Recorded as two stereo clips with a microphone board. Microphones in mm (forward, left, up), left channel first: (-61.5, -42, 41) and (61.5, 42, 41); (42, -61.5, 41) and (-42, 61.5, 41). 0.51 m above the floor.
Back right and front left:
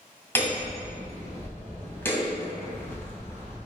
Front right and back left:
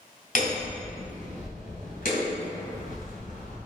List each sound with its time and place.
0.3 s hammering: 70° right, 2 m